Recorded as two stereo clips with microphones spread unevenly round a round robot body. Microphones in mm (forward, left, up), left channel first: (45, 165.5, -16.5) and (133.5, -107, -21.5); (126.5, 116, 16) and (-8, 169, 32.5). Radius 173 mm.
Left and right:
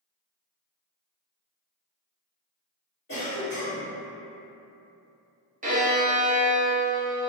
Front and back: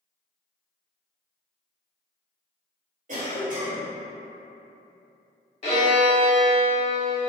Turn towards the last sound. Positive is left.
turn(degrees=-25)